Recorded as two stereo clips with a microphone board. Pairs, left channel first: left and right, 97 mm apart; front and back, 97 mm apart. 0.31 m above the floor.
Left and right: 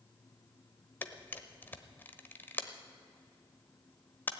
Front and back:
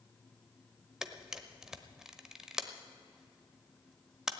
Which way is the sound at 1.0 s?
105° left.